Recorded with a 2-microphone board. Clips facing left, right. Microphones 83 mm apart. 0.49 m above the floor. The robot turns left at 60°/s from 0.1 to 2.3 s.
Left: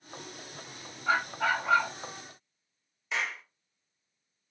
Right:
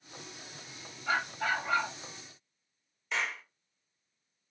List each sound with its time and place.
1.1 s a dog barking: 150° left, 1.2 m; by 1.9 s 95° left, 1.2 m
3.1 s a clap: 5° left (ahead or behind), 1.1 m